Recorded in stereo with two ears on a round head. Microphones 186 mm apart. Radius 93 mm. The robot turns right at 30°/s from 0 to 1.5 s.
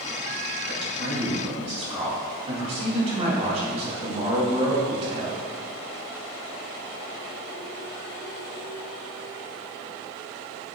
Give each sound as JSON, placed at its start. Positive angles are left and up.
{"t": 0.7, "sound": "a man speaking", "side_deg": -55, "distance_m": 3.0}